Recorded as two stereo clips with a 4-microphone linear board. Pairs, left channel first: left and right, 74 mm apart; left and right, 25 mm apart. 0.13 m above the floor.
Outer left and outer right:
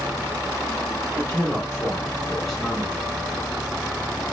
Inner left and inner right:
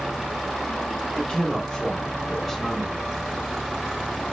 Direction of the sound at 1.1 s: 30° left (ahead or behind).